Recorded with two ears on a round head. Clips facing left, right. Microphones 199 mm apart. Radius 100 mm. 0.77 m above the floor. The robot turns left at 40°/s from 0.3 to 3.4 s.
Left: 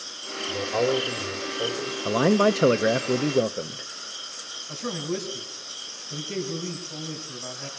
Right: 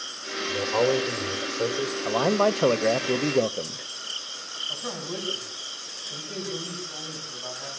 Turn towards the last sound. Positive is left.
turn(degrees=35)  # may be behind; listen again after turning